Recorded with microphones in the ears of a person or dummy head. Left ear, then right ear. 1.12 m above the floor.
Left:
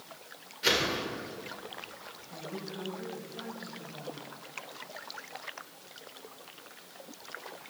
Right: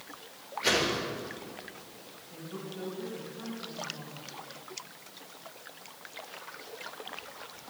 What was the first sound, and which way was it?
A whoosh, 10° left (ahead or behind).